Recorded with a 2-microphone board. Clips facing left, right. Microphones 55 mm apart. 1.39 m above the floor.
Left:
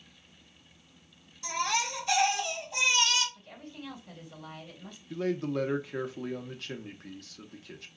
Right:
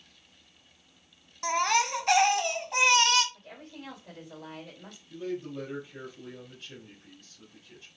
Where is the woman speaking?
70° right (ahead or behind), 3 m.